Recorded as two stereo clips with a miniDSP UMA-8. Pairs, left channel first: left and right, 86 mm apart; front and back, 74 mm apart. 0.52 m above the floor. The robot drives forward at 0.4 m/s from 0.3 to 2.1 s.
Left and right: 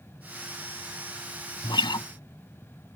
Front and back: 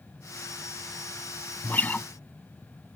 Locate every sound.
1.6 s a guitar: 65° left; by 2.1 s 70° left